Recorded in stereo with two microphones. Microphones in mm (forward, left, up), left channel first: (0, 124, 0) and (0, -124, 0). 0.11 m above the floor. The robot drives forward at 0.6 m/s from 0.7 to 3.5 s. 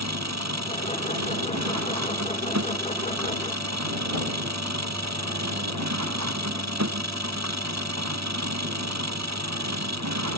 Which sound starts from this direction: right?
An engine running, at 0.0 s.